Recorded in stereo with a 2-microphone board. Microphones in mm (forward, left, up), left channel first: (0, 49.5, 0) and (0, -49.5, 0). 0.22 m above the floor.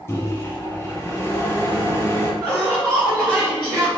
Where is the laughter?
10° right (ahead or behind), 1.2 m.